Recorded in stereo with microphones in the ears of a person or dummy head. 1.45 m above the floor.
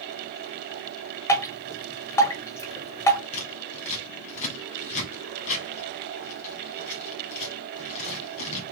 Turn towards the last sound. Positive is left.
turn(degrees=40)  # may be behind; listen again after turning